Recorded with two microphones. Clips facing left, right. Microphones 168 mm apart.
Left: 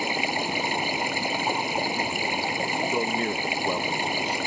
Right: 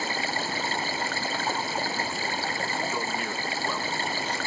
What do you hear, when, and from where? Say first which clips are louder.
0.0 s running water: left 3 dB; 15° left (ahead or behind)
2.8 s a man speaking: left 5 dB; 35° left (ahead or behind)